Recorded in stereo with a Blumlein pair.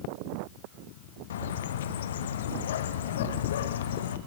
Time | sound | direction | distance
1.3 | a bird | 60° left | 1.0 m